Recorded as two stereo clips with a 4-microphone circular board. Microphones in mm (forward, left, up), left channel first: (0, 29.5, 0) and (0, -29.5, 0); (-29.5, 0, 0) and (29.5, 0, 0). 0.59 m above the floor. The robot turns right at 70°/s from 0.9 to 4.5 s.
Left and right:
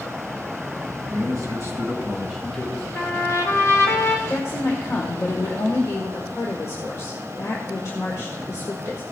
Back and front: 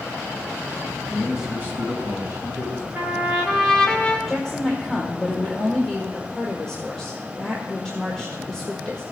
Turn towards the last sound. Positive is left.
turn(degrees=105)